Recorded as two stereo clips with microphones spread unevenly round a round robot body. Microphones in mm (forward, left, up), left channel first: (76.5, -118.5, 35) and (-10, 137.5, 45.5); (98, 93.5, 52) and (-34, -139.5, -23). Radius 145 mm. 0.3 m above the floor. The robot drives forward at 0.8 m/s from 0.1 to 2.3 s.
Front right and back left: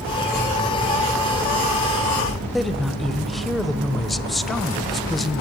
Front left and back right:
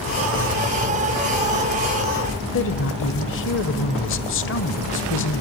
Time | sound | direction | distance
2.5 | a woman speaking | 15° left | 1.6 m